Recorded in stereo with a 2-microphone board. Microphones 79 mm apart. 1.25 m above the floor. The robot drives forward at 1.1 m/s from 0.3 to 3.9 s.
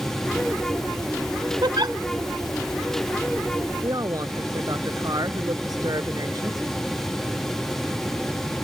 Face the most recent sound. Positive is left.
turn(degrees=-55)  # may be behind; listen again after turning